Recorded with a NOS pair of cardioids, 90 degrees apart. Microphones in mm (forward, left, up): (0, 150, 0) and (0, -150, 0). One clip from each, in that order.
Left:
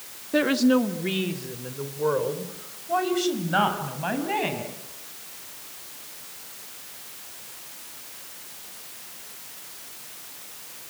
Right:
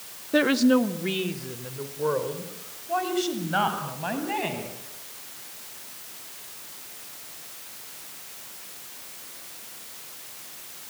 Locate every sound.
0.3 s a woman speaking: 15° right, 1.6 m; by 4.7 s 15° left, 8.5 m